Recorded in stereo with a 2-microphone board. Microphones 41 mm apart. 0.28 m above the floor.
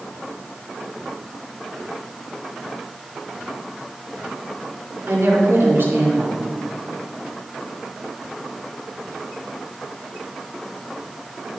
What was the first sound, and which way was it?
A woman speaking, 70° right (ahead or behind).